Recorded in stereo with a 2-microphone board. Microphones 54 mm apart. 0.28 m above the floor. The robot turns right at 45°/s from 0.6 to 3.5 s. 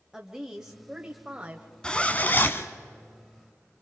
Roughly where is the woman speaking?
Centre.